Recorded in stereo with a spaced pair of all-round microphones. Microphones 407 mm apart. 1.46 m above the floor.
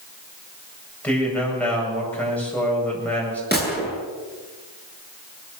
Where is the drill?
I don't hear a drill.